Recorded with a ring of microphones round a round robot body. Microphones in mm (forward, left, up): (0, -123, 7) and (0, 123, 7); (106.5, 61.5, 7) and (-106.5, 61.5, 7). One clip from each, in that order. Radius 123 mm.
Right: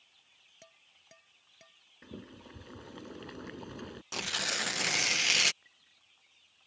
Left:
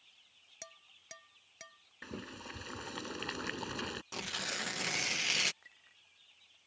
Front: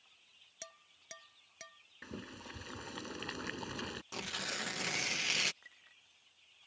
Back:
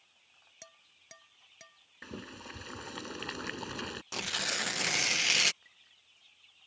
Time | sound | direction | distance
0.6 | dishes clattering | 55° left | ?
2.0 | boiling | 115° left | ?
4.1 | tearing paper | 140° right | ?
5.6 | a clink | 35° left | ?